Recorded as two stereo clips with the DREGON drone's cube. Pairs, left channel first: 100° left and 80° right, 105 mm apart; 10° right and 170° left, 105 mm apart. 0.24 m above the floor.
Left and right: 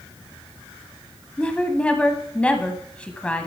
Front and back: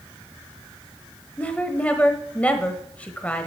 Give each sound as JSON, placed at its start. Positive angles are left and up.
{"t": 1.4, "sound": "a woman speaking", "azimuth_deg": 45, "distance_m": 1.0}